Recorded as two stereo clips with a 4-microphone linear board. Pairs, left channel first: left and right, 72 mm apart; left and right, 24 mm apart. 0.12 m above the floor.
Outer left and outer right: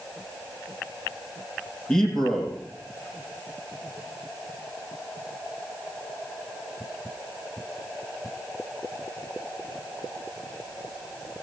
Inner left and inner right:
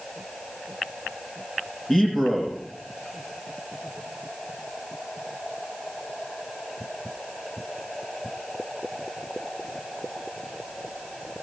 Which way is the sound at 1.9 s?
10° left (ahead or behind).